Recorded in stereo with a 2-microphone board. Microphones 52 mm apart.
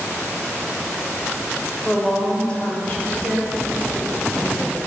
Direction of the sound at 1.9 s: 5° left (ahead or behind).